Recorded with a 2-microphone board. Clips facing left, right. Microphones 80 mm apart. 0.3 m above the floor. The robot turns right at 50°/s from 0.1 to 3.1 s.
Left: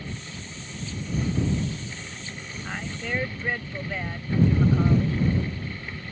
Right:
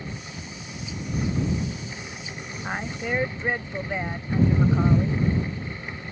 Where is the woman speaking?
35° right (ahead or behind); by 5.3 s 20° right (ahead or behind).